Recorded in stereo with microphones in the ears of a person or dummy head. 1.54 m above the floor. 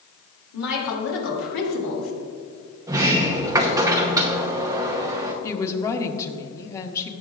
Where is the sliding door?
20° right (ahead or behind), 0.9 m.